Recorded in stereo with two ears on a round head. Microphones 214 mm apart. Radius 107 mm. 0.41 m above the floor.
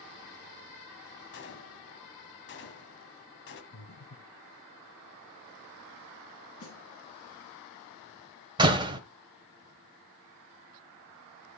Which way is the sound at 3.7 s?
55° left (ahead or behind).